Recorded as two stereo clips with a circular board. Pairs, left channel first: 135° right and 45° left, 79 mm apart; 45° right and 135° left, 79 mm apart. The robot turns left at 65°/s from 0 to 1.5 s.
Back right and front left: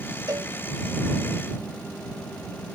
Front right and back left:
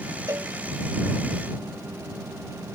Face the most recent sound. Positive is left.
turn(degrees=10)